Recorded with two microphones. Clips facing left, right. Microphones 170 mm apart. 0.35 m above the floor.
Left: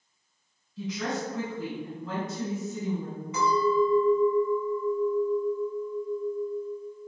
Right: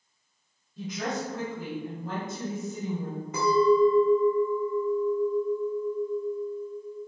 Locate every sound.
0.8 s a woman speaking: 50° right (ahead or behind), 1.8 m
3.3 s a clink: 55° right (ahead or behind), 1.6 m